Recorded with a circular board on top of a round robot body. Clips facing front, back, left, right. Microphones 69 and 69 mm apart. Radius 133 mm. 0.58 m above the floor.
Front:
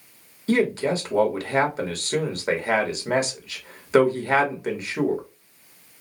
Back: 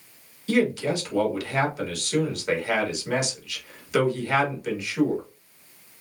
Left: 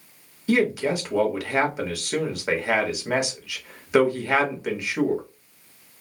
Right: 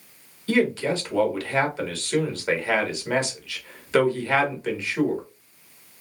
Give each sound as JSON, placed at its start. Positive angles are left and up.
{"t": 0.5, "sound": "a man speaking", "azimuth_deg": 20, "distance_m": 1.6}